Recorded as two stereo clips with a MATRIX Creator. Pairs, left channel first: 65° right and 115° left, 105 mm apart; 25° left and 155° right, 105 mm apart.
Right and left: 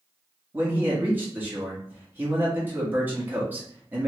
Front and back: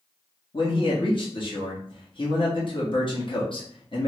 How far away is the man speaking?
About 1.1 m.